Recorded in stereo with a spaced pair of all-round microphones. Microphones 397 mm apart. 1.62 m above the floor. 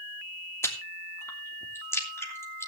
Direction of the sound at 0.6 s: 5° left (ahead or behind).